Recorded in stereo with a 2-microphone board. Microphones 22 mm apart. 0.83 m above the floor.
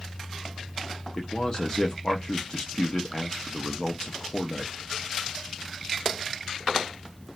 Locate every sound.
1.2 s a man speaking: 30° left (ahead or behind), 0.5 m